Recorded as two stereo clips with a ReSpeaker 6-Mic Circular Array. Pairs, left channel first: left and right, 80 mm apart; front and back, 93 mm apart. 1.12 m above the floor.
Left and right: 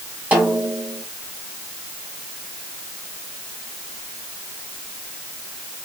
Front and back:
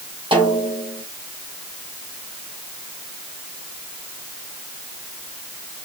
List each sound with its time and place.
0.3 s a snare drum: 160° right, 2.5 m